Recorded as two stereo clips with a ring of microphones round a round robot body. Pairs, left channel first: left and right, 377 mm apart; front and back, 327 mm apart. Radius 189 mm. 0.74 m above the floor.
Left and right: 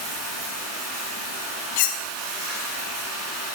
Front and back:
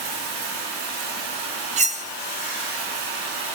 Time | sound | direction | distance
0.0 | running water | 145° right | 4 m
1.8 | cutlery clinking | 110° left | 0.5 m